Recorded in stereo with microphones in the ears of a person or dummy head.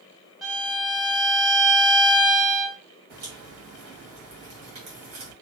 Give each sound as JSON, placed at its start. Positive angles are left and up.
{"t": 0.4, "sound": "a violin", "side_deg": -5, "distance_m": 0.5}
{"t": 3.1, "sound": "a crack", "side_deg": -40, "distance_m": 1.5}